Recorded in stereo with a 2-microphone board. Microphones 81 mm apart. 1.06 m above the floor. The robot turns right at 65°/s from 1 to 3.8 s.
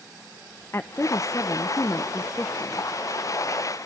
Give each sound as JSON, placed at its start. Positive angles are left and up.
{"t": 0.7, "sound": "a woman speaking", "azimuth_deg": 55, "distance_m": 0.7}